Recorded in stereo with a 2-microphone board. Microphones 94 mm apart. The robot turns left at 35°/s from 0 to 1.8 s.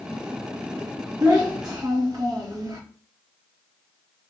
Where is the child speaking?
35° right (ahead or behind), 1.0 m; by 2.8 s 45° right (ahead or behind), 1.0 m.